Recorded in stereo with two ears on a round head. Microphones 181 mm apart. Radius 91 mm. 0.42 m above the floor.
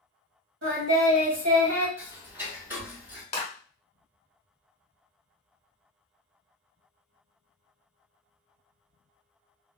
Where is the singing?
60° right (ahead or behind), 1.5 m.